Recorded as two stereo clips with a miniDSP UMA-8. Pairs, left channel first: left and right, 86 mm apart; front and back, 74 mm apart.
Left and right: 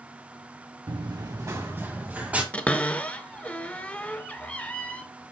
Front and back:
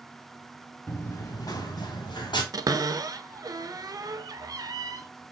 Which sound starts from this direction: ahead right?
Running footsteps, at 0.9 s.